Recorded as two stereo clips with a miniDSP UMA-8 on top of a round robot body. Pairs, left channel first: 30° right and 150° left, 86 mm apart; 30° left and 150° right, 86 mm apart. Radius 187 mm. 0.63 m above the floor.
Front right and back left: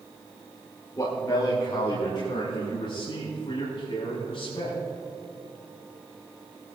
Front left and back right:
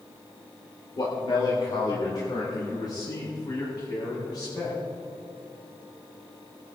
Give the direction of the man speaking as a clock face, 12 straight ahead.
12 o'clock.